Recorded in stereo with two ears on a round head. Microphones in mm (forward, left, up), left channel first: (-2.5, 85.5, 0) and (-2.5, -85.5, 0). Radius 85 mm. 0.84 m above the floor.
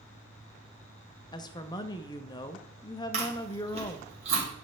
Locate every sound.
1.3 s a woman speaking: 20° left (ahead or behind), 0.6 m
3.1 s chewing: 35° right (ahead or behind), 2.5 m